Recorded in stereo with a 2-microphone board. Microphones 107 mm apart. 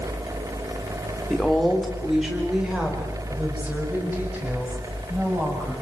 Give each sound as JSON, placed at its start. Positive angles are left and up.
{"t": 1.3, "sound": "a woman speaking", "side_deg": 5, "distance_m": 3.0}